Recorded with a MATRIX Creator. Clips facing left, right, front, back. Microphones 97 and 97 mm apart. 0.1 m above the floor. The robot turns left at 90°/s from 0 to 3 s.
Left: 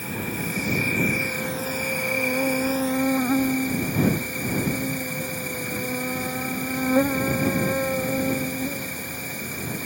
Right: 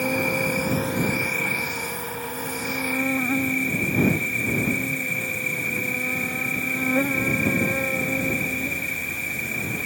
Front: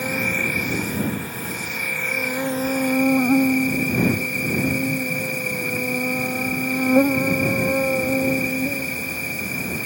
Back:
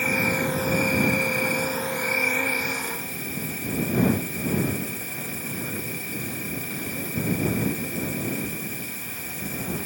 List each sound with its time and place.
0.0 s an insect: 70° right; by 9.8 s 20° left